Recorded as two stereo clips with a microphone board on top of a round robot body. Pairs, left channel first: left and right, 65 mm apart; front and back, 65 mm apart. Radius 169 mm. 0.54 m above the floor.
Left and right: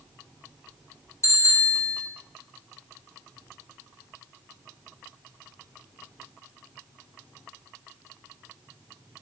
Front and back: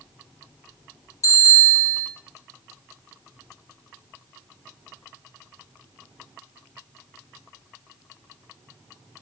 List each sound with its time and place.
1.2 s a bicycle bell: 45° left, 8.5 m